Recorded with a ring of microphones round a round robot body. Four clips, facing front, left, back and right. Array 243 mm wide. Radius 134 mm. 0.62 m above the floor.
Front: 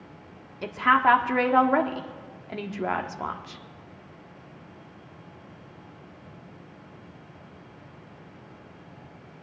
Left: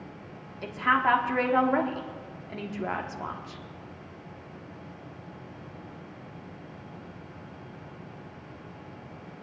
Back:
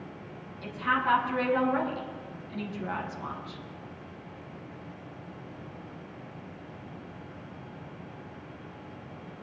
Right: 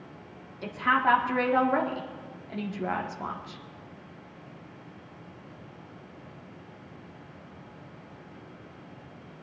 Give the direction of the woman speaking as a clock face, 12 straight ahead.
12 o'clock.